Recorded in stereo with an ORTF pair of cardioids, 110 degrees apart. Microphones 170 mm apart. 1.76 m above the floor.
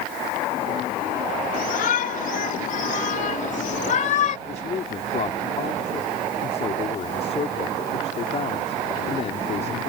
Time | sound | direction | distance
1.5 | a shout | 55° left | ?
4.5 | a woman speaking | 40° left | ?